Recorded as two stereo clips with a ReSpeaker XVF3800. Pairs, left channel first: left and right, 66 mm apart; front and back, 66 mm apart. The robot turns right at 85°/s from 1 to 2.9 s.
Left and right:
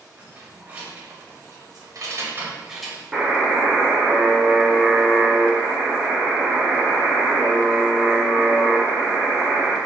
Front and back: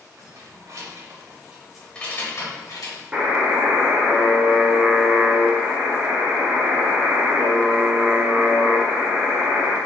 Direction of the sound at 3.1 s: 145° right.